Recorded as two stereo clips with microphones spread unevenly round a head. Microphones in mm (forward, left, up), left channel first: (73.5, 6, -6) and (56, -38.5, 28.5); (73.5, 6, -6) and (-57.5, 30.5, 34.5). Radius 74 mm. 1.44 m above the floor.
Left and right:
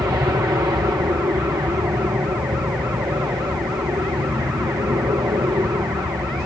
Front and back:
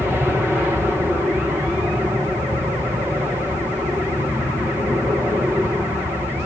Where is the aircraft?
105° right.